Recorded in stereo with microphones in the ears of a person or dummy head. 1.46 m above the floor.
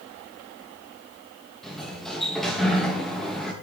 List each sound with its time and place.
1.6 s a sliding door: 5° left (ahead or behind), 1.8 m